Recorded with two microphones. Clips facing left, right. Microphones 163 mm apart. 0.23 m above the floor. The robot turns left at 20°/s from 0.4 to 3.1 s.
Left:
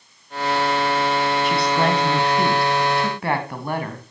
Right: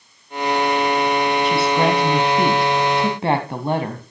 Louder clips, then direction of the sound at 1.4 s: Right 2 dB; straight ahead.